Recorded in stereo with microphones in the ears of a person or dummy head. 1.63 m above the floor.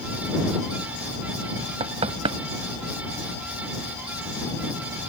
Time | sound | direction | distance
1.8 | knocking | 30° right (ahead or behind) | ?